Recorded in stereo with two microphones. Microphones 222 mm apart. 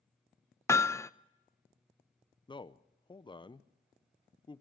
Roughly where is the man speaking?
Left.